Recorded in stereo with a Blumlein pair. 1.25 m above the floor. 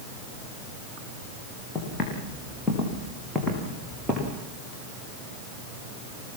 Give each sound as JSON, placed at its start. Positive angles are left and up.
{"t": 1.8, "sound": "footsteps", "azimuth_deg": 15, "distance_m": 7.0}